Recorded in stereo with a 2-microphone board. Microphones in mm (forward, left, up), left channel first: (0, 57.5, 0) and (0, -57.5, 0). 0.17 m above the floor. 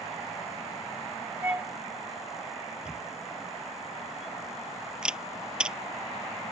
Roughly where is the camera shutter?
Centre.